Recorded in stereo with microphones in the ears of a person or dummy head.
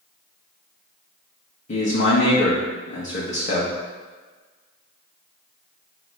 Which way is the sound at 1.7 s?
45° left (ahead or behind).